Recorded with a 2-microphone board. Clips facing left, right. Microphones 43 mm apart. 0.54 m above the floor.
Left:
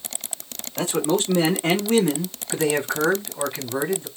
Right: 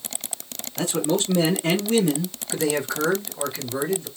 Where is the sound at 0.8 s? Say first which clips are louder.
Left 1 dB; 40° left (ahead or behind), 1.4 m; by 2.4 s 35° left (ahead or behind), 1.0 m.